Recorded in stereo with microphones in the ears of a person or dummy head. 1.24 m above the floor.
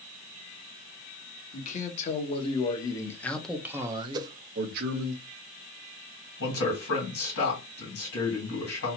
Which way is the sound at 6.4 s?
80° left.